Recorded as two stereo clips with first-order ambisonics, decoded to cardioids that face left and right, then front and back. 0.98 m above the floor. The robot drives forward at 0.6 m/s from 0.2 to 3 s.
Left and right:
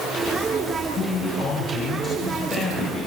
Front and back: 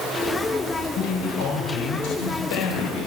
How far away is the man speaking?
About 5 m.